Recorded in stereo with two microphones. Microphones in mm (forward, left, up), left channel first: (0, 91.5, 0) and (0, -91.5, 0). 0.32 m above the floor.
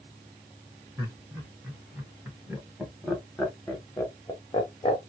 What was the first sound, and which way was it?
Laughter, 15° right (ahead or behind).